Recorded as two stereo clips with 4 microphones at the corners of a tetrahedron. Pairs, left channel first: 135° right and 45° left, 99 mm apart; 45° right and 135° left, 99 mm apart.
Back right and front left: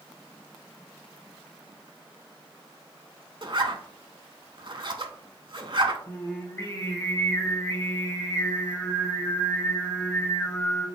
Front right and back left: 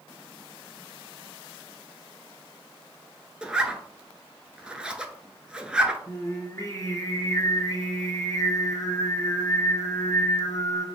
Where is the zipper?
60° left, 0.6 m.